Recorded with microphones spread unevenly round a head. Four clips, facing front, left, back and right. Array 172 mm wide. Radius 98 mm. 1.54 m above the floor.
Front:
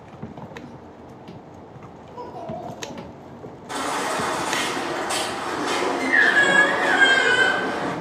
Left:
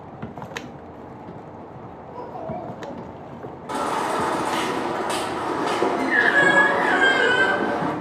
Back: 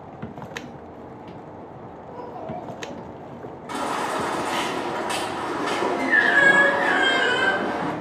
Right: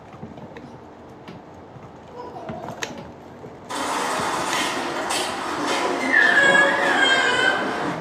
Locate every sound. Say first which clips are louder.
2.1 s a child speaking: left 2 dB, front 1 dB; 110° left, 2 m
3.7 s a baby crying: left 1 dB, even; 95° left, 2.5 m